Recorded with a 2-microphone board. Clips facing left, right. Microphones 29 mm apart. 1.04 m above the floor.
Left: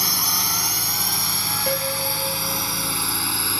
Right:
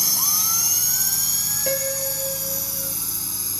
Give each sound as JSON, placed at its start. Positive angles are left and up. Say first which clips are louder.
{"t": 0.0, "sound": "a drone", "louder": "left 2 dB", "side_deg": 35}
{"t": 1.7, "sound": "a piano", "louder": "left 1 dB", "side_deg": 0}